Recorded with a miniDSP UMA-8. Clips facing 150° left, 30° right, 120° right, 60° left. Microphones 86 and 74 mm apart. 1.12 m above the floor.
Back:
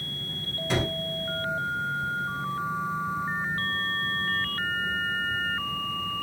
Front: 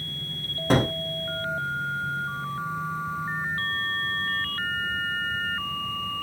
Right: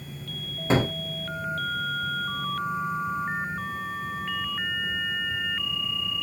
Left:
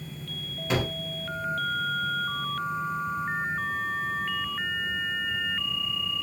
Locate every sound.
0.7 s a gunshot: 70° right, 0.5 m